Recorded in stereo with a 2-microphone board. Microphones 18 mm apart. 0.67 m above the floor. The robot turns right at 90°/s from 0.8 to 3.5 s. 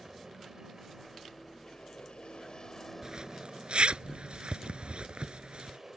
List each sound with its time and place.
0.0 s an aircraft: 30° right; by 6.0 s 145° right
3.0 s a zipper: 40° right (ahead or behind); by 5.8 s 80° right